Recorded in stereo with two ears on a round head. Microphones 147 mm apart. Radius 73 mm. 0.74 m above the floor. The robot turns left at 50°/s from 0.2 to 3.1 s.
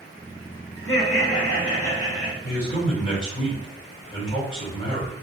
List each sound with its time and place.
0.8 s laughter: 130° left, 1.4 m; by 2.3 s 55° left, 1.4 m
2.4 s a man speaking: 60° left, 1.9 m; by 5.1 s 25° left, 1.9 m